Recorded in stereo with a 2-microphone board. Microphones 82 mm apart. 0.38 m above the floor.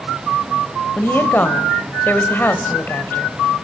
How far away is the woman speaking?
About 1.4 m.